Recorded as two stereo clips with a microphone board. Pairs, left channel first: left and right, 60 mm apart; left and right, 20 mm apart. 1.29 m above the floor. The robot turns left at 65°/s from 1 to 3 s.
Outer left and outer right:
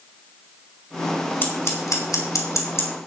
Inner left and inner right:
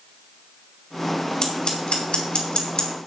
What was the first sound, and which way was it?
Scissors, 35° left (ahead or behind).